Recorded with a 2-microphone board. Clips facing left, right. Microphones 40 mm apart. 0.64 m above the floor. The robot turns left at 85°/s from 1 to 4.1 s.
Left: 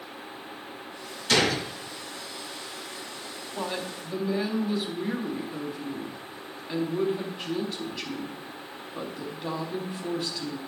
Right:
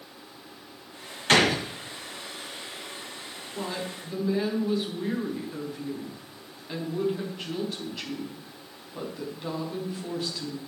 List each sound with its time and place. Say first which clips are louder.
1.3 s a gunshot: right 3 dB; 135° right, 1.5 m; by 1.7 s 165° right, 1.5 m
3.5 s a woman speaking: left 1 dB; 50° left, 4 m; by 10.6 s straight ahead, 4 m